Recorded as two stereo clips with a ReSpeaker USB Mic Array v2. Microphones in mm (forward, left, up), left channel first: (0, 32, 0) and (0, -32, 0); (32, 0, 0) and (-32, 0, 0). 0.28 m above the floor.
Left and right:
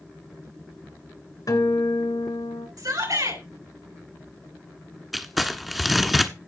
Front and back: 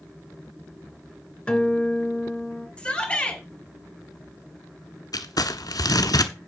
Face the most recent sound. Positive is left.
turn(degrees=0)